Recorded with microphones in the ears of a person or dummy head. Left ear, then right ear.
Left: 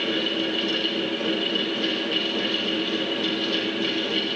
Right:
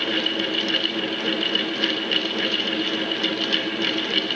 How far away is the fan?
About 1.2 m.